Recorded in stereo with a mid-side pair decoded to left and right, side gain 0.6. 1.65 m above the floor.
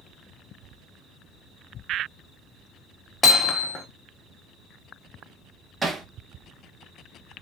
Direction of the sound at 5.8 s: 20° right.